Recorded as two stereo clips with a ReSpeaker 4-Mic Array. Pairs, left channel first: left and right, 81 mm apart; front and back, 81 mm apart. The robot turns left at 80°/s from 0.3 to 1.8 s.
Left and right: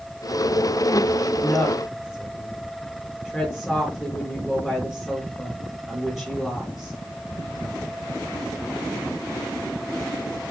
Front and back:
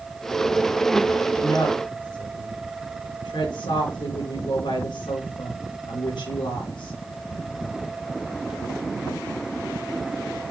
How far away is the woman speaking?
About 4 m.